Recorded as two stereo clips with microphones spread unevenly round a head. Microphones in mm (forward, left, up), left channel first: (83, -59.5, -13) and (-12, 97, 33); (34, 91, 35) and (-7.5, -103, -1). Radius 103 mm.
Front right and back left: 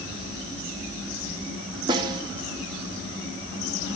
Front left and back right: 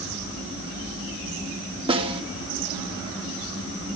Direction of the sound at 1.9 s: 170° right.